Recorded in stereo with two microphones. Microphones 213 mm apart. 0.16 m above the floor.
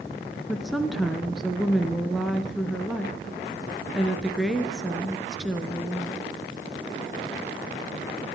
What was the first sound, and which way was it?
A woman speaking, centre (ahead or behind).